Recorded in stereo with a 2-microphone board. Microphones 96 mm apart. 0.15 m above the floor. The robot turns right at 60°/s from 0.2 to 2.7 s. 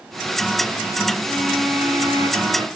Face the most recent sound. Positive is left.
turn(degrees=-105)